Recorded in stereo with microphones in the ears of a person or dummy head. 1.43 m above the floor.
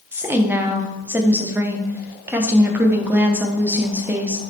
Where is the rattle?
I don't hear a rattle.